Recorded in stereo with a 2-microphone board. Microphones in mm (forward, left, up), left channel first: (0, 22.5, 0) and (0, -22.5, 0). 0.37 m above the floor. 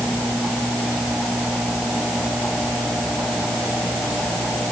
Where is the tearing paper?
No tearing paper in this recording.